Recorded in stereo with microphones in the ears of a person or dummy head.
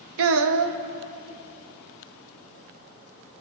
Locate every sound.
0.2 s a child speaking: 80° right, 0.6 m